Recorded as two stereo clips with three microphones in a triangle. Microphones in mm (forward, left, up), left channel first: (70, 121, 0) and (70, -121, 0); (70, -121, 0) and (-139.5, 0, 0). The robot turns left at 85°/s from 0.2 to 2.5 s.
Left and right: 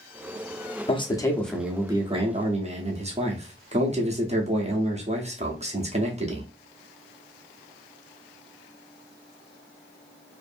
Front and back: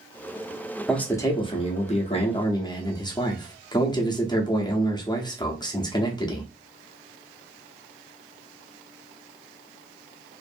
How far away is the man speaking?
About 0.7 m.